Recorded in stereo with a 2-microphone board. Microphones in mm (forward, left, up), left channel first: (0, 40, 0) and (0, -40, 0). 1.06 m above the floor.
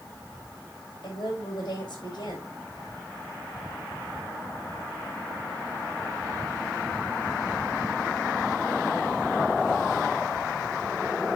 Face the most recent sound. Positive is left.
turn(degrees=60)  # may be behind; listen again after turning